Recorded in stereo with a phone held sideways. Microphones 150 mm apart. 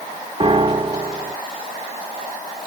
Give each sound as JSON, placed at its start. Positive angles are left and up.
{"t": 0.4, "sound": "a piano", "side_deg": -35, "distance_m": 1.4}